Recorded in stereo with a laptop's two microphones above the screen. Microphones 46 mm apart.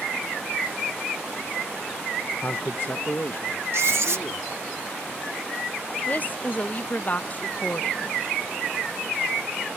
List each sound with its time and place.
2.4 s a man speaking: 40° left (ahead or behind); by 4.7 s 50° left (ahead or behind)
3.7 s writing: 65° right (ahead or behind)
6.1 s a woman speaking: 40° left (ahead or behind)